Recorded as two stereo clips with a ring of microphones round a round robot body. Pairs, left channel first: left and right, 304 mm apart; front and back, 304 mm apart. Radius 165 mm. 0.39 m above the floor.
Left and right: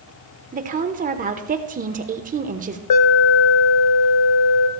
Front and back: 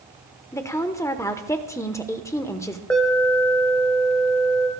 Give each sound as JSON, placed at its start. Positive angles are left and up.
{"t": 0.5, "sound": "a woman speaking", "azimuth_deg": -70, "distance_m": 0.8}
{"t": 2.9, "sound": "an alarm", "azimuth_deg": 85, "distance_m": 1.0}